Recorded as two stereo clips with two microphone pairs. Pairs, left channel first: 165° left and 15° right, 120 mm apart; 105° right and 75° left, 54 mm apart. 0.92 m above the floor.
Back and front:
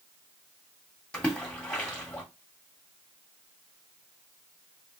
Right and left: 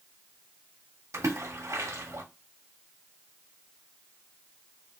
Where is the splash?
85° left, 1.5 m.